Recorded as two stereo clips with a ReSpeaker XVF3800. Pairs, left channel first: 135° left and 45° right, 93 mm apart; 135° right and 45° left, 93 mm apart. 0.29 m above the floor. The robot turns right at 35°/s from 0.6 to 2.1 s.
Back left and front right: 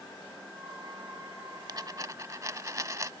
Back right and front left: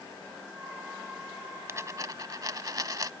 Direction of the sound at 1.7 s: 10° right.